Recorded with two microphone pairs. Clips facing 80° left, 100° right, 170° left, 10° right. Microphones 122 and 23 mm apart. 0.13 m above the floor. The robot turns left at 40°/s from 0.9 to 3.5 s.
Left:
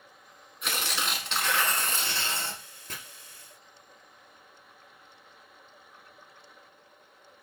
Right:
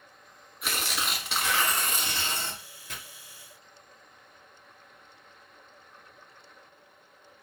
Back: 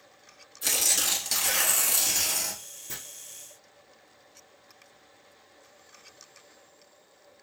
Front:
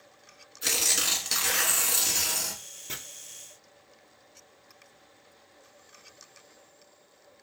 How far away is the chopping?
About 1.9 m.